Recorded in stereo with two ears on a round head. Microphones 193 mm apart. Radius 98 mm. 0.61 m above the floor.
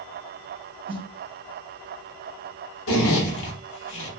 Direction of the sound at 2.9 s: 70° left (ahead or behind).